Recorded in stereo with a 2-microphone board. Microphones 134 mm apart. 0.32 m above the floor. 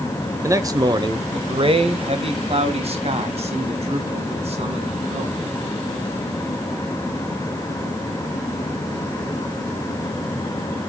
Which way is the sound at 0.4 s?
25° right (ahead or behind).